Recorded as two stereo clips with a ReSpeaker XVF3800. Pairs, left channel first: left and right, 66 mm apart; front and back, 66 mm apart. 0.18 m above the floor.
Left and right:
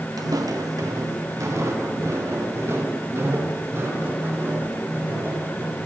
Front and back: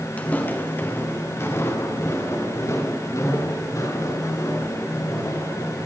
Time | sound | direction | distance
0.2 | footsteps | 70° right | 3.5 m